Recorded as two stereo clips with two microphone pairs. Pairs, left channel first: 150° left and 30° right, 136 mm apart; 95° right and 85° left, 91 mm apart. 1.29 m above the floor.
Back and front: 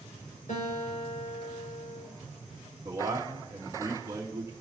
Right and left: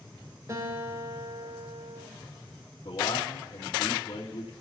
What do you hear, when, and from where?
0.5 s a guitar: 135° left, 6 m
2.9 s a man speaking: 95° right, 2.5 m